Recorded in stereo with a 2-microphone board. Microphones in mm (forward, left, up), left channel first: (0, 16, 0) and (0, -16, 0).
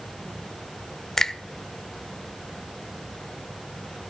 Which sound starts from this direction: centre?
A finger snap, at 1.2 s.